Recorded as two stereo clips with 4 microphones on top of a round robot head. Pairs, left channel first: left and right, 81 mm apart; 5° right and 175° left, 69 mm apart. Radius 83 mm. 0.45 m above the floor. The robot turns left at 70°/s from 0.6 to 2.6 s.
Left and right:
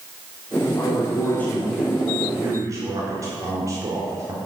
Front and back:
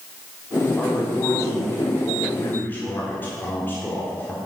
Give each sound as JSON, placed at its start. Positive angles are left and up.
{"t": 0.8, "sound": "a man speaking", "azimuth_deg": 70, "distance_m": 1.7}